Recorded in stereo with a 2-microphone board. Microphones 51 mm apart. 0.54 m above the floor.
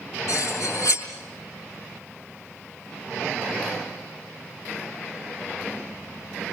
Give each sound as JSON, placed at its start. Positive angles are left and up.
{"t": 0.3, "sound": "cutlery clinking", "side_deg": 85, "distance_m": 4.5}